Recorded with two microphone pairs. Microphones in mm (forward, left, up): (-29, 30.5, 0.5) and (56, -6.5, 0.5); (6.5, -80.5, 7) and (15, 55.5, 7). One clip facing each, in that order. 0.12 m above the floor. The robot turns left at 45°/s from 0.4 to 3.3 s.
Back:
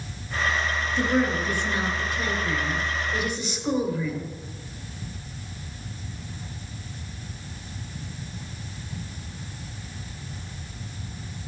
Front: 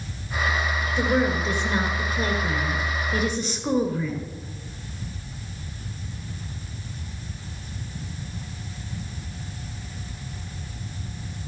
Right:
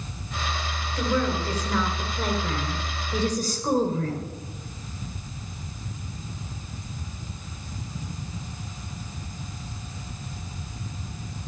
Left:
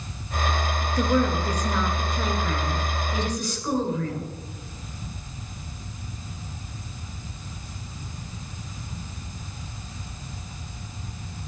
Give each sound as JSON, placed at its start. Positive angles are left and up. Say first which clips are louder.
{"t": 1.0, "sound": "a woman speaking", "louder": "front 1 dB, left 2 dB", "azimuth_deg": 50, "distance_m": 2.5}